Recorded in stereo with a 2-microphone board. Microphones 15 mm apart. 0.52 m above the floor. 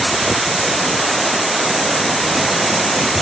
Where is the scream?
No scream in this recording.